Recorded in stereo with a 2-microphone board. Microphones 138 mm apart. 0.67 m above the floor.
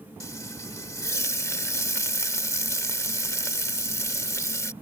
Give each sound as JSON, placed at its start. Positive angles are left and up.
{"t": 0.2, "sound": "frying", "side_deg": 20}